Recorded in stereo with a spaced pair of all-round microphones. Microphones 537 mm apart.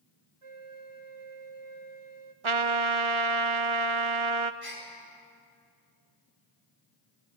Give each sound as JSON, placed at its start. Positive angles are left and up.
{"t": 0.4, "sound": "a flute", "side_deg": -70, "distance_m": 1.0}
{"t": 2.4, "sound": "a trumpet", "side_deg": -65, "distance_m": 0.7}
{"t": 4.6, "sound": "a gasp", "side_deg": 75, "distance_m": 5.0}